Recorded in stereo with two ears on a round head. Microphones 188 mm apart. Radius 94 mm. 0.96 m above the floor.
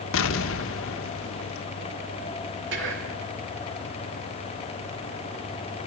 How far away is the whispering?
About 2.5 m.